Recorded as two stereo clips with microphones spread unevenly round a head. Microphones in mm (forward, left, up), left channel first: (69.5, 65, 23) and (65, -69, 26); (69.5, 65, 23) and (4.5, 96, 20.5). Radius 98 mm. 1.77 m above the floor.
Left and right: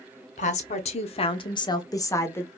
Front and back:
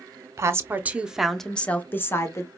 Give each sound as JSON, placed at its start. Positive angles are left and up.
{"t": 0.4, "sound": "a woman speaking", "azimuth_deg": 120, "distance_m": 0.8}